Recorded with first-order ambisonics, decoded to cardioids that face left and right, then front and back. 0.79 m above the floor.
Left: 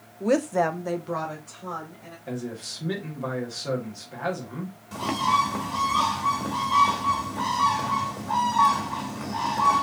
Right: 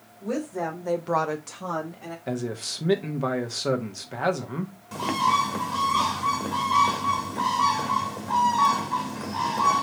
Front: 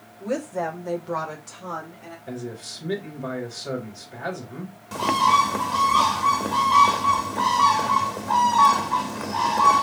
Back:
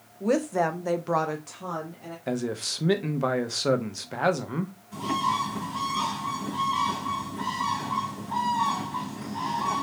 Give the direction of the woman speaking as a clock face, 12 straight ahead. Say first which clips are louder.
Left 7 dB, back 3 dB; 8 o'clock.